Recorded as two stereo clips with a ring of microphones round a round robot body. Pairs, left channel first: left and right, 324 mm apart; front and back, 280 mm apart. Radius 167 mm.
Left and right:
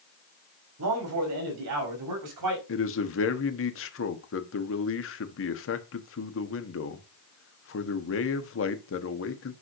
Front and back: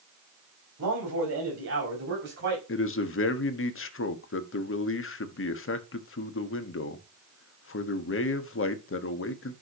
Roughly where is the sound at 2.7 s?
Ahead left.